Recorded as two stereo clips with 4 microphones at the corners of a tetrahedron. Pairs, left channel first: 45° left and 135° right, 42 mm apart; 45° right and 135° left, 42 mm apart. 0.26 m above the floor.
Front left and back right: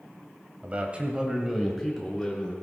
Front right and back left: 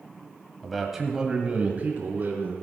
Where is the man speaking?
125° right, 1.8 m; by 2.5 s 120° left, 2.5 m.